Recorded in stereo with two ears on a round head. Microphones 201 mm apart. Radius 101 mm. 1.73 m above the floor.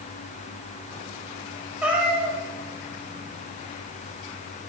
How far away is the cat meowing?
About 1.2 m.